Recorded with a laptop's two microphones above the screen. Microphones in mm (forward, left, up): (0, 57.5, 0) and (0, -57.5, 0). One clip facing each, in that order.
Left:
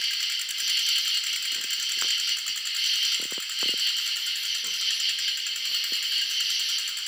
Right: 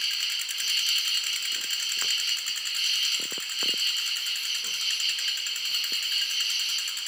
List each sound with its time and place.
0.0 s an insect: 40° right (ahead or behind), 1.2 m